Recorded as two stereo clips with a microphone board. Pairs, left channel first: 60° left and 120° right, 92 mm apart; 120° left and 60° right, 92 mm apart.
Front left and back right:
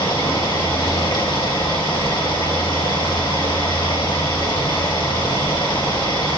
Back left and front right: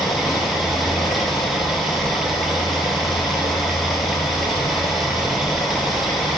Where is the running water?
30° left, 2.5 m.